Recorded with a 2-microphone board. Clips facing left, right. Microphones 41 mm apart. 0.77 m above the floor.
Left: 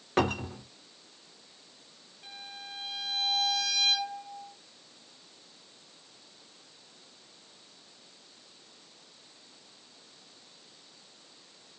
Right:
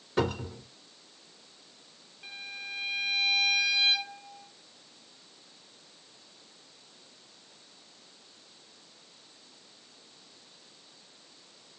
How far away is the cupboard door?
About 1.4 m.